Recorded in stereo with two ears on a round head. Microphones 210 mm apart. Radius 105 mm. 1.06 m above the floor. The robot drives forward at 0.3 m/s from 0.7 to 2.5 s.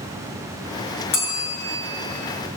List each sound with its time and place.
1.1 s a bell: 65° left (ahead or behind), 6.5 m